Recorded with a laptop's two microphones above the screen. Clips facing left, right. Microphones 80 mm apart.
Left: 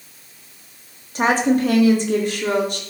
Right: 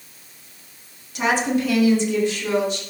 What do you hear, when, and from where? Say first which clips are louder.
1.1 s a woman speaking: left 4 dB; 40° left (ahead or behind), 2 m; by 2.8 s 60° left (ahead or behind), 3 m